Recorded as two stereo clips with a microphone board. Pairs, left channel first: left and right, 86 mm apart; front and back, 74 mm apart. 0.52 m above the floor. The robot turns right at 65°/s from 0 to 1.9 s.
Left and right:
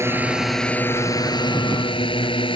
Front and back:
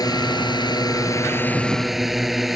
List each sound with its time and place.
0.0 s a drone: 30° right; by 2.6 s 90° left